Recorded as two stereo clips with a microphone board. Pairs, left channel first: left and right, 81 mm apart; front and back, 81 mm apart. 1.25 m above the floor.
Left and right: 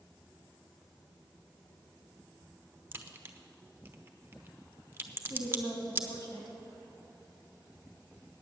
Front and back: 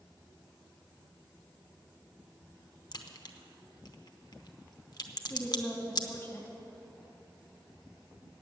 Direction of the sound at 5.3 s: 65° left.